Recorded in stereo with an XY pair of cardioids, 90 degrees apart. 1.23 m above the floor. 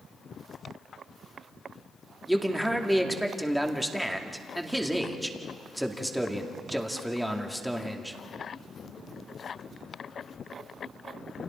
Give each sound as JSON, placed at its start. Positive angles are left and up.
{"t": 2.3, "sound": "a man speaking", "azimuth_deg": -5, "distance_m": 2.5}